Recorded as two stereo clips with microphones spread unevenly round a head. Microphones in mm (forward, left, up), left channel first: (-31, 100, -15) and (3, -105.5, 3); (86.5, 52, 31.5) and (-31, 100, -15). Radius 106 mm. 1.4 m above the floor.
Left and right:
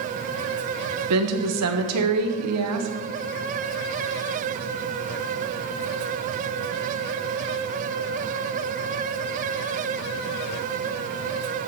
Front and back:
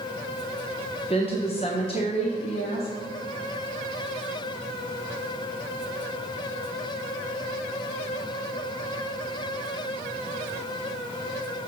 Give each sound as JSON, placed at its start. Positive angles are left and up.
{"t": 1.1, "sound": "a woman speaking", "azimuth_deg": -90, "distance_m": 1.1}